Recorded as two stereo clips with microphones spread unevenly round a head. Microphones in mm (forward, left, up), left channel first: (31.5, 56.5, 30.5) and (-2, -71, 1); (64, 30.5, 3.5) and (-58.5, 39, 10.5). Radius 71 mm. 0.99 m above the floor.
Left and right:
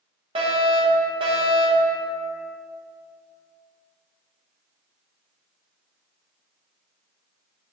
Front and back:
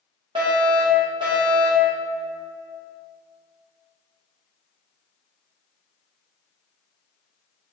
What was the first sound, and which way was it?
A fire alarm, 130° right.